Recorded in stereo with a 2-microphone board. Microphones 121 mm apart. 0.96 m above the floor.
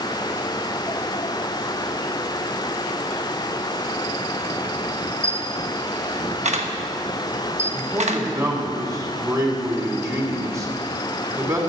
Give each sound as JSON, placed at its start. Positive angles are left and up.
{"t": 5.2, "sound": "a camera shutter", "side_deg": -65, "distance_m": 1.0}
{"t": 7.7, "sound": "a man speaking", "side_deg": -25, "distance_m": 3.0}